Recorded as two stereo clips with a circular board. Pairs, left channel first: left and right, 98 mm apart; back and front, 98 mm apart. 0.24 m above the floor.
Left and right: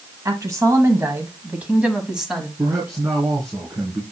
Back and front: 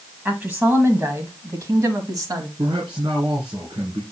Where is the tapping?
No tapping in this recording.